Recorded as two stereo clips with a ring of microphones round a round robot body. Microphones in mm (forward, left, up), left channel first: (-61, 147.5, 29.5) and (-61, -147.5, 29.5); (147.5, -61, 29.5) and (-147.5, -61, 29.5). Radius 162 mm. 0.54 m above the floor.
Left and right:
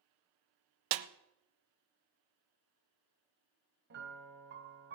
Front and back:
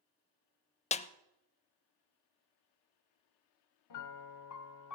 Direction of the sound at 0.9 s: 70° right.